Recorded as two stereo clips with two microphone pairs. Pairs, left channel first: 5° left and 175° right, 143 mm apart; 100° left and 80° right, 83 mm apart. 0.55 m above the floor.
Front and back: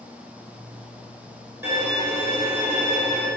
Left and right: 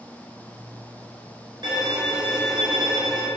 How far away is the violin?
About 4 m.